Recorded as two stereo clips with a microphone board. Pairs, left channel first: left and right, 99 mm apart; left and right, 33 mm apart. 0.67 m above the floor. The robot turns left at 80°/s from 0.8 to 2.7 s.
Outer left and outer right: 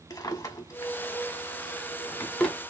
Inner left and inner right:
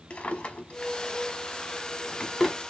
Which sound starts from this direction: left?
A drawer, at 0.1 s.